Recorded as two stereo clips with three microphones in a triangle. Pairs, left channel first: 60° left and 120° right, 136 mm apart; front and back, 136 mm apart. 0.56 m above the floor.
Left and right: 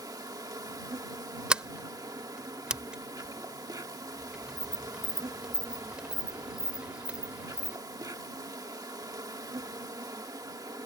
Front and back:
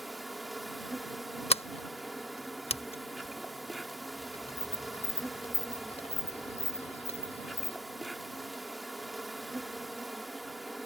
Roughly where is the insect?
Right.